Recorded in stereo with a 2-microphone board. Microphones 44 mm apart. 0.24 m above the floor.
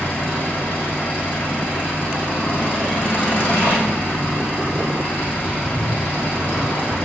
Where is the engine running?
45° left (ahead or behind), 8 m.